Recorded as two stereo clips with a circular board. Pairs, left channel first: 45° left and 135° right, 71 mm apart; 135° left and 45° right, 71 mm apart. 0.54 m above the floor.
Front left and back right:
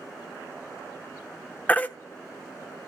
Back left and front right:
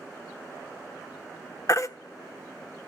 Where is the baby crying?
105° left, 0.9 m.